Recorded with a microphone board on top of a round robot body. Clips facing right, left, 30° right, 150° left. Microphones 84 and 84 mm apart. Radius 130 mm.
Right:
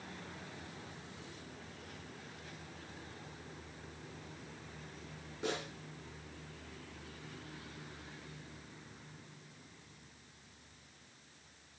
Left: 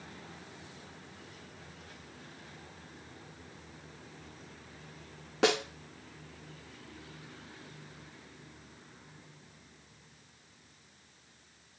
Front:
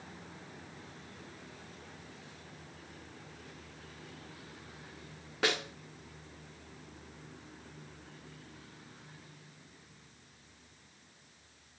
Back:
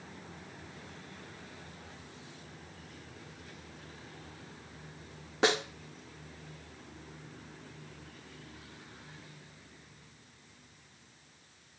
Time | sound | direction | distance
5.4 | a snare drum | 80° left | 1.3 m